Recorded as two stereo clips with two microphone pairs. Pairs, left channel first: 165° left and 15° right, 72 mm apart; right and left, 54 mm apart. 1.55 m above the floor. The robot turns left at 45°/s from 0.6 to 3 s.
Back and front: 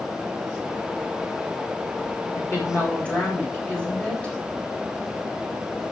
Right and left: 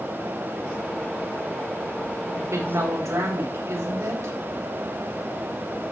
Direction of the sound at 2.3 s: 120° left.